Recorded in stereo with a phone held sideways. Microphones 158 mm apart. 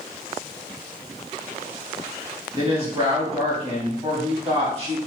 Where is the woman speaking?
40° right (ahead or behind), 1.4 m.